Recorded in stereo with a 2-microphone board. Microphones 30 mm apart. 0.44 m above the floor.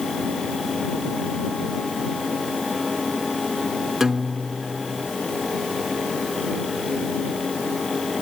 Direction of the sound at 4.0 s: 10° right (ahead or behind).